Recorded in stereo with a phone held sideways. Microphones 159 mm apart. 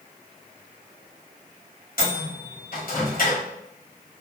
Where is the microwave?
65° left (ahead or behind), 1.5 m.